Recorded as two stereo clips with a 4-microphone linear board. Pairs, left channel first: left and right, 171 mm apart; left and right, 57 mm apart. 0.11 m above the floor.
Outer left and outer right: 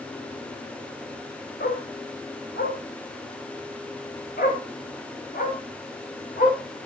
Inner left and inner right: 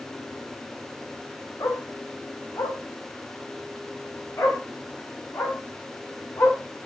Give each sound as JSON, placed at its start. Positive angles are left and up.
{"t": 1.6, "sound": "a dog barking", "side_deg": 80, "distance_m": 3.5}